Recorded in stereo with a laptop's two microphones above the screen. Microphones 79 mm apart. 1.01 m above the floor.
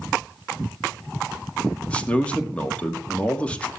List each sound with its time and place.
1.9 s a man speaking: 15° left (ahead or behind), 2 m